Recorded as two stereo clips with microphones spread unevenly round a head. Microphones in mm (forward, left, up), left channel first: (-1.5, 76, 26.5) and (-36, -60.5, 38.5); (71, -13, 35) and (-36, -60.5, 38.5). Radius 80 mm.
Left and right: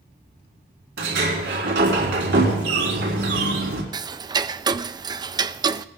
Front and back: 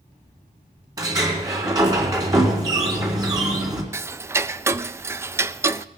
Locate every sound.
1.0 s a sliding door: 100° right, 4 m
3.9 s ticking: 125° right, 0.5 m